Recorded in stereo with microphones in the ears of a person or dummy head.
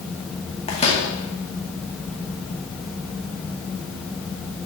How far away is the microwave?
About 2 m.